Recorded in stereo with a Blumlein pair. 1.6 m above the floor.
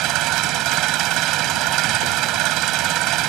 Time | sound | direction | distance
0.0 | an engine running | 35° right | ?